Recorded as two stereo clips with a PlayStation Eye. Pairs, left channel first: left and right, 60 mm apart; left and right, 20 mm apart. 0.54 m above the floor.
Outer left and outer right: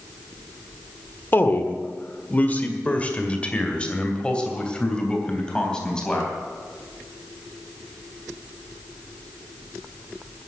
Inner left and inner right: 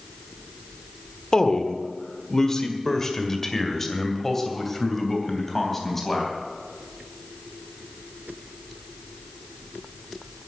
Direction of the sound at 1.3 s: 35° left (ahead or behind).